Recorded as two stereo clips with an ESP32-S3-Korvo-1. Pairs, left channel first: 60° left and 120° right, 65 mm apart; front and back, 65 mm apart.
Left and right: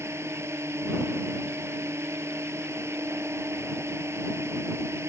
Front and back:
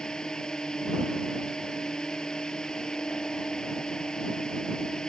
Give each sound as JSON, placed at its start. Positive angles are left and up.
{"t": 0.0, "sound": "a drone", "azimuth_deg": -80}